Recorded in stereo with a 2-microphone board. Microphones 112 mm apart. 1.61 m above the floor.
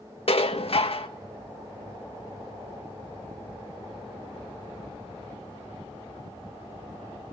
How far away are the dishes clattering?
About 1.4 m.